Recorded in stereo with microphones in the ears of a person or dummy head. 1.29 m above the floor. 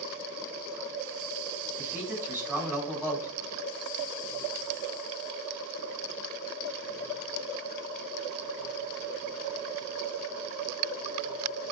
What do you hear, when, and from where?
1.8 s a man speaking: 15° right (ahead or behind), 7 m